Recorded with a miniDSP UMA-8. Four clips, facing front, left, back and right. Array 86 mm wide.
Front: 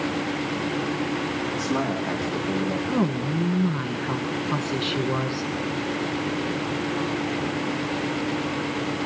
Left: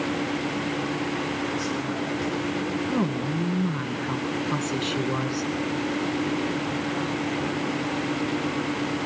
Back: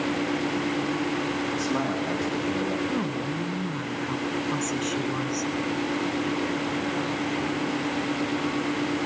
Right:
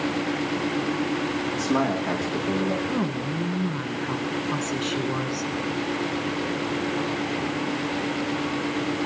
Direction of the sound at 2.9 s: 5° left.